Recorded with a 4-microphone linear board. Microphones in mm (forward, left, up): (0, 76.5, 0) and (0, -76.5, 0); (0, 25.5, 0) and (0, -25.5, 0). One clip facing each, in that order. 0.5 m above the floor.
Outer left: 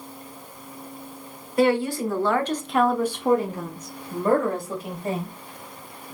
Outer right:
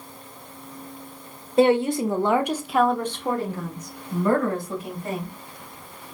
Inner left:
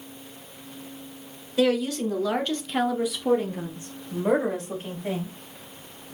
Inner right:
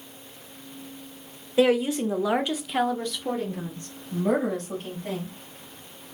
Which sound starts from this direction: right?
A woman speaking, at 1.6 s.